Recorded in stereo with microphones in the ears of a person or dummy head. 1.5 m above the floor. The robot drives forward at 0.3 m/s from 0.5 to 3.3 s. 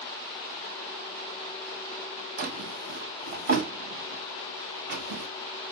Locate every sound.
2.4 s a drawer: 50° right (ahead or behind), 0.9 m; by 5.3 s 45° right (ahead or behind), 1.0 m